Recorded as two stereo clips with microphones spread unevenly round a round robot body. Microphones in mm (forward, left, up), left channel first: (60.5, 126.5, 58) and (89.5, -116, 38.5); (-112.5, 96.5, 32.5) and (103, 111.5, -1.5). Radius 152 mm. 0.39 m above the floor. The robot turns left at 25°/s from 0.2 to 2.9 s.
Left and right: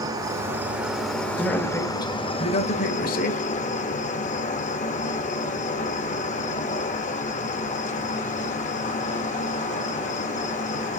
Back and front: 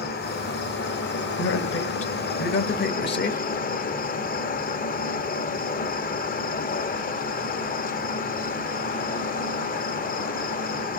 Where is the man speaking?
170° right, 1.7 m; by 3.4 s 150° left, 1.7 m.